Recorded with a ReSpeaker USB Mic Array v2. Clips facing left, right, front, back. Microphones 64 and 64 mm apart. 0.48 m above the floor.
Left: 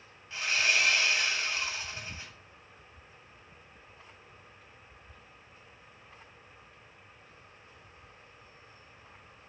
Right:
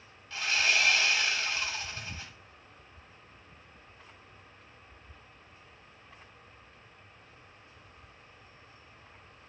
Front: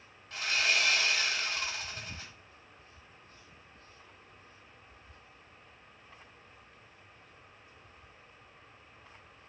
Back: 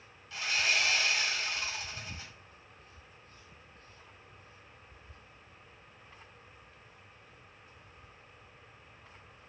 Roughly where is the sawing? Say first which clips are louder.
Even, front 1 dB; ahead left.